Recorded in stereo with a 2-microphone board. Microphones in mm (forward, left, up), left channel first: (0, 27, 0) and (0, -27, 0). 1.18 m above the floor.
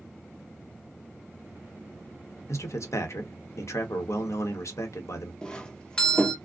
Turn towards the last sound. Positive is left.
turn(degrees=15)  # may be behind; listen again after turning